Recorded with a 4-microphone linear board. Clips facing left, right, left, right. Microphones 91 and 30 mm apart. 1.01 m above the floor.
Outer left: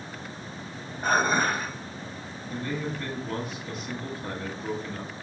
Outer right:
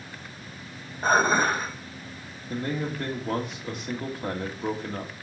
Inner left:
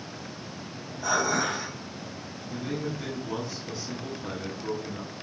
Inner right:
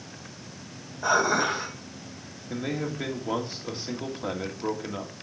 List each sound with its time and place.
1.0 s dishes clattering: 30° right (ahead or behind), 2.5 m
2.5 s a man speaking: 65° right (ahead or behind), 1.9 m